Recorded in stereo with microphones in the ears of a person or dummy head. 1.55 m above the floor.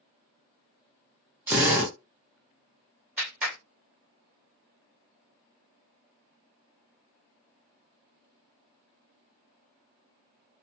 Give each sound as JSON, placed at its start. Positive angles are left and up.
{"t": 1.5, "sound": "a drill", "side_deg": -15, "distance_m": 1.0}
{"t": 3.2, "sound": "a clap", "side_deg": -10, "distance_m": 1.7}